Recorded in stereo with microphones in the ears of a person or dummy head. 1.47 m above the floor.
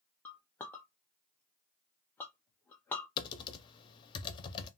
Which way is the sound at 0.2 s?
10° left (ahead or behind).